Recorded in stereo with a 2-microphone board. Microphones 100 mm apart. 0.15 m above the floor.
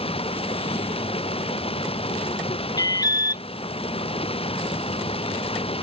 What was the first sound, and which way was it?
Running water, 70° left (ahead or behind).